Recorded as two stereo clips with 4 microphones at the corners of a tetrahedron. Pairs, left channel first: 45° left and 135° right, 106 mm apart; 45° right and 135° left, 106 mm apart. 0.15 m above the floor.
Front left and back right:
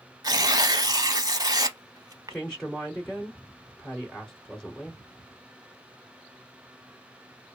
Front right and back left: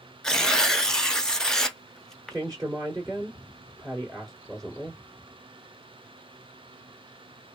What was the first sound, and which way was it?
Tearing paper, 125° right.